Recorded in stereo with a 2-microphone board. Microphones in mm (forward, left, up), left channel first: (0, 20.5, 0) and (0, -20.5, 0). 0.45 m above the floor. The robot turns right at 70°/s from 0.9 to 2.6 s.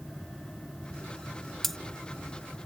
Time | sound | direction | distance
1.6 | cutlery clinking | 5° left (ahead or behind) | ?